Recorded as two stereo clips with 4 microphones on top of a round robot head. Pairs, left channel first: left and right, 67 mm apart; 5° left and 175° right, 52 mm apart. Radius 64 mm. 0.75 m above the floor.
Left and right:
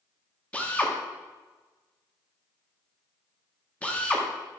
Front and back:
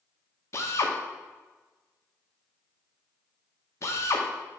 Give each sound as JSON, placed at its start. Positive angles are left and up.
{"t": 0.5, "sound": "a drill", "azimuth_deg": 20, "distance_m": 1.5}